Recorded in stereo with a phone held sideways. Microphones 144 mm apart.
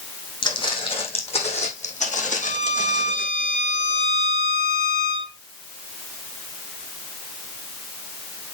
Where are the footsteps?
35° left (ahead or behind), 4.5 m; by 3.3 s 70° left (ahead or behind), 4.5 m.